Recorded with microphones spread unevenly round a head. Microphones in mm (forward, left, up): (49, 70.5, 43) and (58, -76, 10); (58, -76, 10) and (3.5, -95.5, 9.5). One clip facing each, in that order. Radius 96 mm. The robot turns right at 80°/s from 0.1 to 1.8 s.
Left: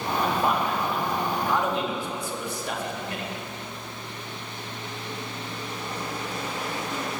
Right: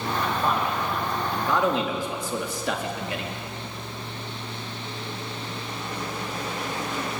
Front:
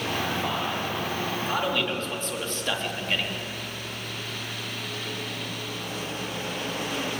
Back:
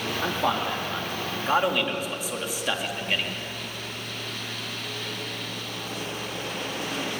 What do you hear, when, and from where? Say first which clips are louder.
0.2 s a man speaking: left 2 dB, back 2 dB; 155° left, 4.5 m; by 3.3 s 80° right, 4.5 m